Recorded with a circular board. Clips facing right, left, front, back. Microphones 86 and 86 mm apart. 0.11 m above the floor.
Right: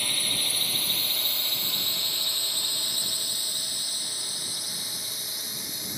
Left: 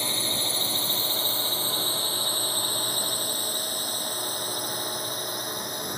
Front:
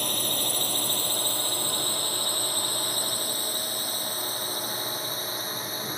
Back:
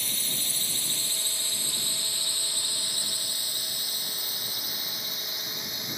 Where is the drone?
25° left; by 6.0 s 55° left.